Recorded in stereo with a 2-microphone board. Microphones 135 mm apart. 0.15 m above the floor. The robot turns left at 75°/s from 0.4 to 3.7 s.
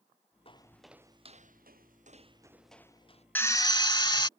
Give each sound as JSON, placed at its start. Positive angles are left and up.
{"t": 0.5, "sound": "footsteps", "side_deg": 40}
{"t": 3.4, "sound": "a drill", "side_deg": 15}